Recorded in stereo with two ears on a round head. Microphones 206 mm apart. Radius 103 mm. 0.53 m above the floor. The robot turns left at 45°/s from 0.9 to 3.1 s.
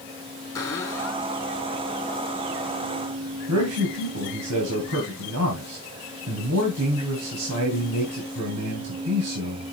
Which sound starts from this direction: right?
A man speaking, at 3.5 s.